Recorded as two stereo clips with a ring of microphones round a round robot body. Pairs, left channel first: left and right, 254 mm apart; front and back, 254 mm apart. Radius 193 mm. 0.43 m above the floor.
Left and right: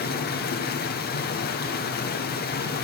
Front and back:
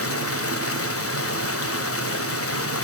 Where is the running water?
30° left, 1.5 m.